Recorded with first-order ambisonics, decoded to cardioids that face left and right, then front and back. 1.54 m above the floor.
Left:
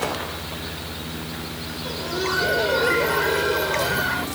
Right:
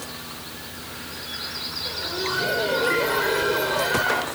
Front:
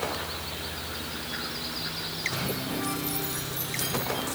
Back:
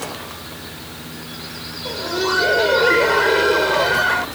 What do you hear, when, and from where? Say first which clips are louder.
1.9 s laughter: left 3 dB, back 15 dB; 165° left; by 4.3 s 175° right